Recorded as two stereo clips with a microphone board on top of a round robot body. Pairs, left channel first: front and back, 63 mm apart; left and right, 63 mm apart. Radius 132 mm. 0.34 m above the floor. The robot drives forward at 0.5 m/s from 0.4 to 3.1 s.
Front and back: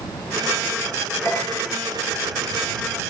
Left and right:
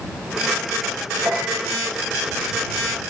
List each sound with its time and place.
1.2 s a piano: 50° right, 9 m